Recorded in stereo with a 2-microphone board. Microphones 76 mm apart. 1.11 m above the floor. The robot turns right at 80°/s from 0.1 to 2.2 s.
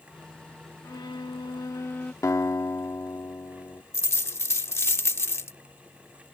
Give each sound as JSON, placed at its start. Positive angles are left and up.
{"t": 0.8, "sound": "a violin", "azimuth_deg": 55}
{"t": 2.2, "sound": "a guitar", "side_deg": 45}
{"t": 3.9, "sound": "a dropped coin", "side_deg": 35}